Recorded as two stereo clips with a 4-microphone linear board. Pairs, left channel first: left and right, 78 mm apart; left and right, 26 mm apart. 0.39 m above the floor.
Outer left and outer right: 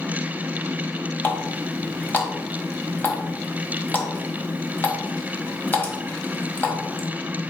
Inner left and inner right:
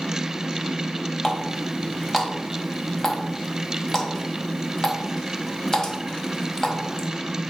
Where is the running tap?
25° left (ahead or behind), 1.6 m.